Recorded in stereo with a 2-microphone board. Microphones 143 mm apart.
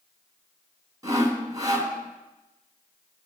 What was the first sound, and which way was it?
Sawing, 25° right (ahead or behind).